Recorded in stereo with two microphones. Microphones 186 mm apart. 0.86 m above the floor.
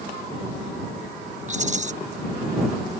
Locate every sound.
1.5 s a rattle: 40° right (ahead or behind)